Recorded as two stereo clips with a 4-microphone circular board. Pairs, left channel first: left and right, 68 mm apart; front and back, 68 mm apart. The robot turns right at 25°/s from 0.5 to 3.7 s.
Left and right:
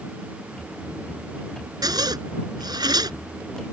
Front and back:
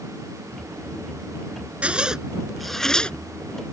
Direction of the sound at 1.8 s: 110° right.